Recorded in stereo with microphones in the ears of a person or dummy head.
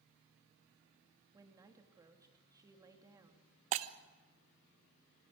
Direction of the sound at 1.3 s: 20° right (ahead or behind).